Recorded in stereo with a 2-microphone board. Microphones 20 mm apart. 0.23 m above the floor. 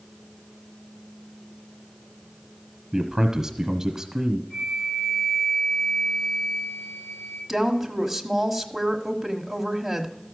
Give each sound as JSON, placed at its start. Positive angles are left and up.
{"t": 2.9, "sound": "a man speaking", "side_deg": -25, "distance_m": 1.1}
{"t": 4.5, "sound": "a flute", "side_deg": 35, "distance_m": 6.0}
{"t": 7.5, "sound": "a woman speaking", "side_deg": -10, "distance_m": 1.1}